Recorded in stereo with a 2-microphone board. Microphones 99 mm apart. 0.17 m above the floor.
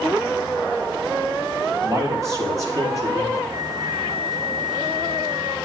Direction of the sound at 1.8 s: 30° right (ahead or behind).